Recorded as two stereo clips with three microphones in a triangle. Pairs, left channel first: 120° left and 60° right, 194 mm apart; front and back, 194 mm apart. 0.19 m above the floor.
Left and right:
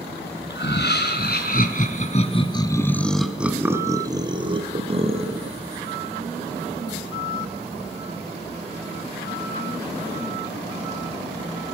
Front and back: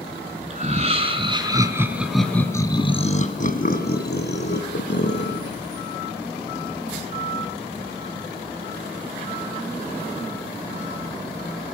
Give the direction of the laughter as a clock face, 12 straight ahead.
8 o'clock.